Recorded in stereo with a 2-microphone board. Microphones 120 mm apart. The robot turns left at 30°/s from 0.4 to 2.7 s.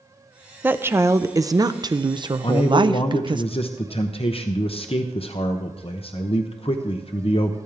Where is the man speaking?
55° left (ahead or behind), 0.8 m.